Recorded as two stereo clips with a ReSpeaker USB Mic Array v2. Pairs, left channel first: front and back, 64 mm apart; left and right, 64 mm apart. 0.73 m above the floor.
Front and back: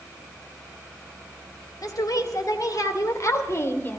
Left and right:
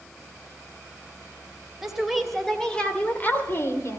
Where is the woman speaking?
5° right, 3 m; by 4.0 s 55° left, 2 m.